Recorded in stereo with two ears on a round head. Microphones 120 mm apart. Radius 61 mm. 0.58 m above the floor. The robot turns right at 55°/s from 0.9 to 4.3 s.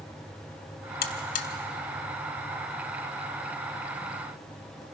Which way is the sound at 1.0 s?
80° left.